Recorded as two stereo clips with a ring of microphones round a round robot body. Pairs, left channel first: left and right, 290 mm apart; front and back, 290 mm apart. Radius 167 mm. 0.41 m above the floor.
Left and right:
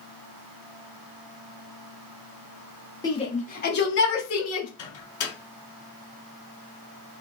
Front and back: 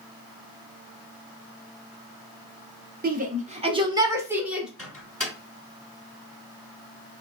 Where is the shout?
155° left, 1.2 m; by 4.7 s 95° left, 1.6 m.